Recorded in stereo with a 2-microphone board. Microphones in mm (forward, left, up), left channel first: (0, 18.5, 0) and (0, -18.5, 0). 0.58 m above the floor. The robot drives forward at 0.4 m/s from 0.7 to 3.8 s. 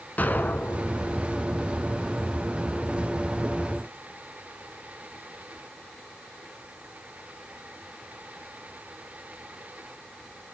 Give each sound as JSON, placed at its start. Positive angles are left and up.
{"t": 0.2, "sound": "an explosion", "side_deg": 50, "distance_m": 1.0}